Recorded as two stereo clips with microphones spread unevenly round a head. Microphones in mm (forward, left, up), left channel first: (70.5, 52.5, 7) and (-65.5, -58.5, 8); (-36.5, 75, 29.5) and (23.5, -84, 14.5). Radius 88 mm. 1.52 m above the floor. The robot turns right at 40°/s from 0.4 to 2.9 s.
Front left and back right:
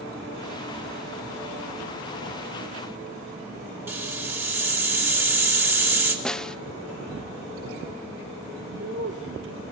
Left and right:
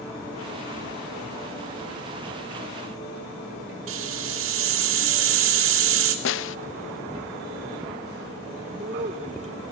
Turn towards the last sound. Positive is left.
turn(degrees=-120)